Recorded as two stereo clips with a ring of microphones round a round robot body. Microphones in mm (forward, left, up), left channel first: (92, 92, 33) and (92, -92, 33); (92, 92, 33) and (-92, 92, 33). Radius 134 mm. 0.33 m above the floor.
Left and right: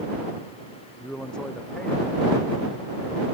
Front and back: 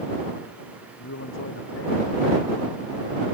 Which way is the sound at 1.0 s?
5° left.